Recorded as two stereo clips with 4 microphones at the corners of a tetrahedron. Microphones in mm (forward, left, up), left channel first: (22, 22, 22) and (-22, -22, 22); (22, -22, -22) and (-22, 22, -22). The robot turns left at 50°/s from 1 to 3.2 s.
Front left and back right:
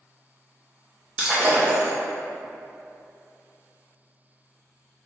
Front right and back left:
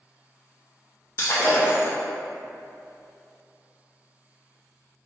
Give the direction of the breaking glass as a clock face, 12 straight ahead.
2 o'clock.